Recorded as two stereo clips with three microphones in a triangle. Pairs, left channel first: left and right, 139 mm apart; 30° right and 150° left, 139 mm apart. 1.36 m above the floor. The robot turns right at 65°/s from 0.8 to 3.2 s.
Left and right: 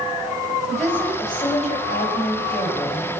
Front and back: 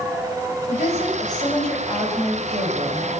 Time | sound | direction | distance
0.7 | a woman speaking | straight ahead | 7 m